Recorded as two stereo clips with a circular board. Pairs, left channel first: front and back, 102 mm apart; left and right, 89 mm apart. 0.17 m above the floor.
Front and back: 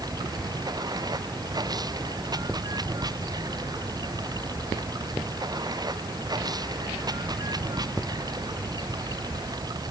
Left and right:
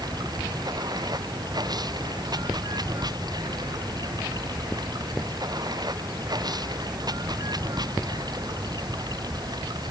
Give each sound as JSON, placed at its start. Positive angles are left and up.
{"t": 0.0, "sound": "running water", "azimuth_deg": -130}